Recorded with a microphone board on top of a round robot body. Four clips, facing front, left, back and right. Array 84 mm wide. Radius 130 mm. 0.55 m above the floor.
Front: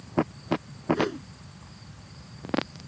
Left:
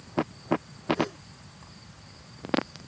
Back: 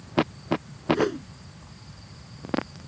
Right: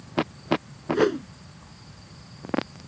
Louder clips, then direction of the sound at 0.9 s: Right 11 dB, back 3 dB; 95° right.